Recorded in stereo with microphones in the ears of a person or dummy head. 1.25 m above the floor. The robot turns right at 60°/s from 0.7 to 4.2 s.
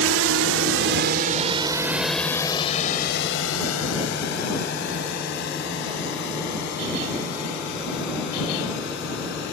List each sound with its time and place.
0.0 s a drone: 75° right (ahead or behind); by 9.5 s 55° left (ahead or behind)